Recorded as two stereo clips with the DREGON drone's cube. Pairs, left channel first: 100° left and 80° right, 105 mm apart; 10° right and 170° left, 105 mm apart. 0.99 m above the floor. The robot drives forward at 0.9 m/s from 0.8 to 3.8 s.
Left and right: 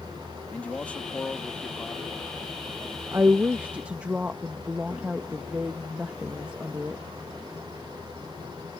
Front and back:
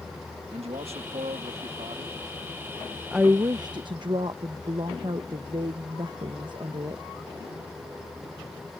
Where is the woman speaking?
110° right; by 7.0 s 155° right.